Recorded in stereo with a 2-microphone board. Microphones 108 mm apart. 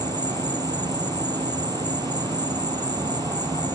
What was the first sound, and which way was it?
An insect, 35° right (ahead or behind).